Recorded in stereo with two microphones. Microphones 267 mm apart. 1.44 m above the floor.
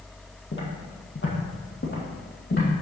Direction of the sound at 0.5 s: 45° left (ahead or behind).